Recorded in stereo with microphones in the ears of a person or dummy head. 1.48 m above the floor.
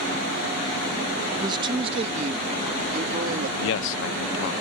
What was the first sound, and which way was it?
A man speaking, 25° right (ahead or behind).